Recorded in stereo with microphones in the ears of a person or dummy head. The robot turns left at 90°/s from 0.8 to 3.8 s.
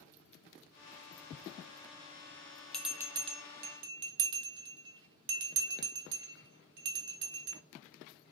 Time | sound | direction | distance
2.7 | a bell | 10° left (ahead or behind) | 0.6 m